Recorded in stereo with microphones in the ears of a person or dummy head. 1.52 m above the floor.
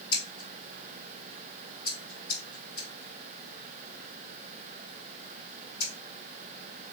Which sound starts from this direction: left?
Scissors, at 0.1 s.